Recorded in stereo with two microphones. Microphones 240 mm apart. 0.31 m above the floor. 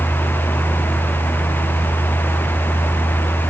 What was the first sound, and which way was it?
Only background noise.